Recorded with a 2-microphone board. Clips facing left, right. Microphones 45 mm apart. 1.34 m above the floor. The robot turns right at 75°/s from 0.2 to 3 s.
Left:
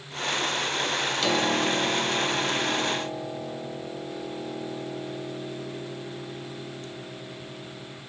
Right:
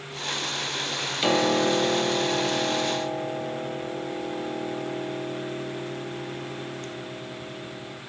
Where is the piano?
155° right, 0.8 m; by 8.0 s 25° right, 0.8 m.